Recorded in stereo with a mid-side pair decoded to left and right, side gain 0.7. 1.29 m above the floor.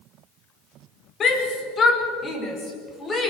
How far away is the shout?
About 5 m.